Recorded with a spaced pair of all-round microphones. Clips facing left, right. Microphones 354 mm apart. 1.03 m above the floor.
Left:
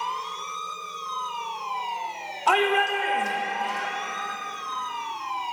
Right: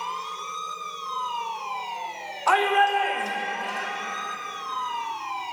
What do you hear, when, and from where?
2.5 s a shout: 45° left (ahead or behind), 1.1 m; by 3.9 s 5° left (ahead or behind), 1.1 m